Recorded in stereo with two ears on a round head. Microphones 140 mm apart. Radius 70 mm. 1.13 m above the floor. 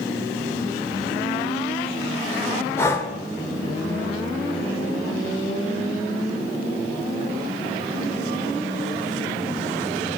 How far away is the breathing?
About 1.2 m.